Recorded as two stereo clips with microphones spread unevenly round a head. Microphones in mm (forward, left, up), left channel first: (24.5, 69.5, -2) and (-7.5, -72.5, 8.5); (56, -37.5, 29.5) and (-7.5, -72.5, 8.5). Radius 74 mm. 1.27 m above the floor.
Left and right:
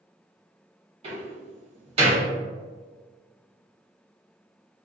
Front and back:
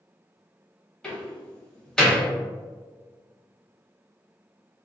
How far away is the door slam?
About 1.2 m.